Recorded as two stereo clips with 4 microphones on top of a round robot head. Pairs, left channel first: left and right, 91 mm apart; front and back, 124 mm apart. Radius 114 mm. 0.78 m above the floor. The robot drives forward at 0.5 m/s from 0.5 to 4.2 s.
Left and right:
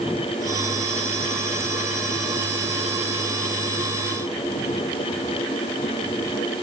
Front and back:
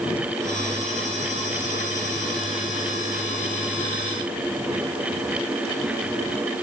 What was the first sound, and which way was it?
Only background noise.